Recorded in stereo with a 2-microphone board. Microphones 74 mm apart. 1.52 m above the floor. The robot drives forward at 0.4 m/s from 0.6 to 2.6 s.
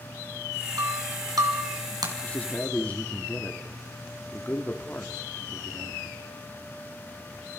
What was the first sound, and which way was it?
Breaking glass, 55° right (ahead or behind).